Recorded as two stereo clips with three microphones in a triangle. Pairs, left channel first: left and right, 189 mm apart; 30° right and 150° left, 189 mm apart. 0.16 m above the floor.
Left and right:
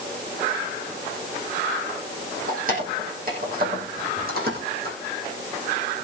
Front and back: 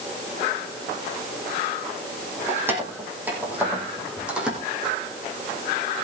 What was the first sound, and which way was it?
Keys jangling, 130° right.